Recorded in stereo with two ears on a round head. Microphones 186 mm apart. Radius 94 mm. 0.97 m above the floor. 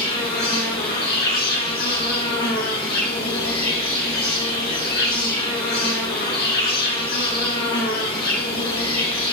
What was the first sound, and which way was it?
An insect, 50° left (ahead or behind).